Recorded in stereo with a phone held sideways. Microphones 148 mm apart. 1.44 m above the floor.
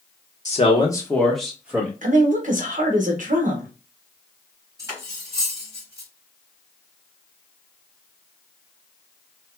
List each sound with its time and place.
0.5 s a man speaking: 55° left (ahead or behind), 0.9 m; by 1.9 s 15° right (ahead or behind), 1.8 m
2.0 s a woman speaking: 60° right (ahead or behind), 1.2 m
4.8 s cutlery clinking: 20° right (ahead or behind), 2 m